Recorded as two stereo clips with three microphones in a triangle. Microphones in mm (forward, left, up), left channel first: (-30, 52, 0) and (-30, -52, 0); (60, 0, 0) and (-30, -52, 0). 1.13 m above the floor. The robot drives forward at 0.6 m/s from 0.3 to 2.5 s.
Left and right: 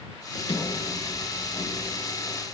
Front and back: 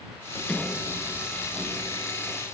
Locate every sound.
0.3 s a sliding door: 105° left, 1.5 m; by 2.4 s 140° left, 2 m